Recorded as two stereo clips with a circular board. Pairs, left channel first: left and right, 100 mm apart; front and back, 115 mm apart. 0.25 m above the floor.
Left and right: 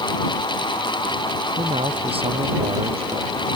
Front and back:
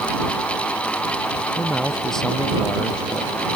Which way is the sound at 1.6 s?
90° right.